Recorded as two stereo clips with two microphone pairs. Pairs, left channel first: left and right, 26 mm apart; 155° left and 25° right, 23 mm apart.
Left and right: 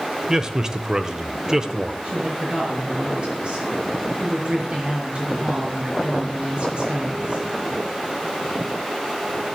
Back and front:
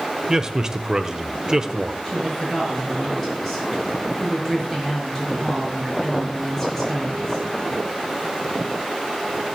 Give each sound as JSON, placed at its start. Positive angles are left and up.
{"t": 0.3, "sound": "a man speaking", "azimuth_deg": -60, "distance_m": 0.9}
{"t": 2.0, "sound": "a woman speaking", "azimuth_deg": -135, "distance_m": 6.5}